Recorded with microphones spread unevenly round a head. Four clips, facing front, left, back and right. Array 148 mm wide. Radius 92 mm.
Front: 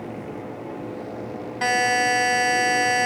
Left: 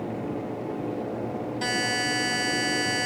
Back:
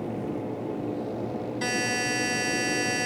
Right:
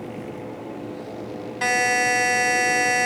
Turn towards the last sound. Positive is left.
turn(degrees=-30)